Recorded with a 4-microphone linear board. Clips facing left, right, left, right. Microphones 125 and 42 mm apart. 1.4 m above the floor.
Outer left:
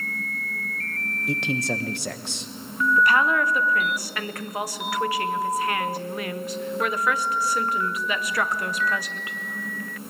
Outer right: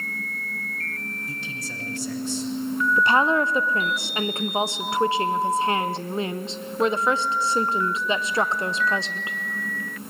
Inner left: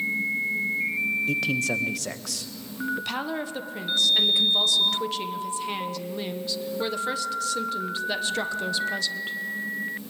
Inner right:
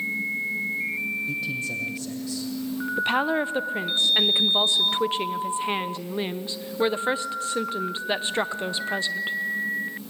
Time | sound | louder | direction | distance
1.3 | a man speaking | outer left 10 dB, inner left 4 dB | 70° left (ahead or behind) | 1.2 m
3.0 | a woman speaking | outer right 1 dB, inner right 7 dB | 25° right (ahead or behind) | 0.9 m